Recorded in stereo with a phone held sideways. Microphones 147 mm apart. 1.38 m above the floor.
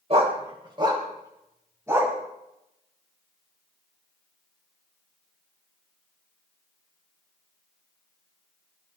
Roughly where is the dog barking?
Right.